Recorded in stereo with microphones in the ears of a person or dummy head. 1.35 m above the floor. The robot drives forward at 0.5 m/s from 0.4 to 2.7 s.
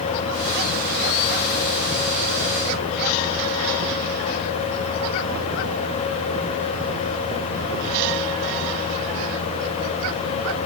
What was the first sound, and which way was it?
Only background noise.